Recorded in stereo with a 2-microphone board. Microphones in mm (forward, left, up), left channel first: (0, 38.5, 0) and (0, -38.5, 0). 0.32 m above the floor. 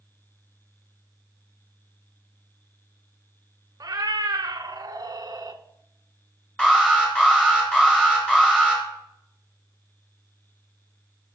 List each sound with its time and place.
3.8 s a cat meowing: 55° right (ahead or behind), 0.8 m
6.6 s an alarm: 10° left (ahead or behind), 4.5 m